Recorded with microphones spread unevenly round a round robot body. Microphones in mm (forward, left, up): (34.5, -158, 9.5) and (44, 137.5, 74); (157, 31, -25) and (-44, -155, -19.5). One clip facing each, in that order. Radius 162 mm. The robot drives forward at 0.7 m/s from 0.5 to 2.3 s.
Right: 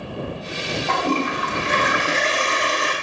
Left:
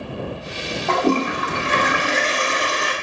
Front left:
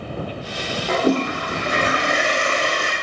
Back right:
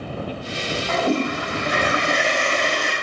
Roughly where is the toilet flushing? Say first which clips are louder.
Left 5 dB, front left 3 dB; left.